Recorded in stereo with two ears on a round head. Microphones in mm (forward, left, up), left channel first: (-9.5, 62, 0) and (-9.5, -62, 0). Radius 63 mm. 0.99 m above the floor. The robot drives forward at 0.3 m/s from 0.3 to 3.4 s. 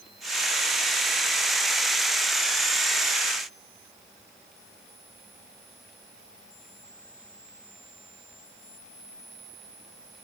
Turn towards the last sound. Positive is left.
No sound to turn to.